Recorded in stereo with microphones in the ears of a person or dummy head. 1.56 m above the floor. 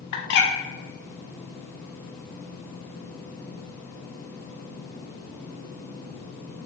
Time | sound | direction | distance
0.1 | a bird | 60° left (ahead or behind) | 0.6 m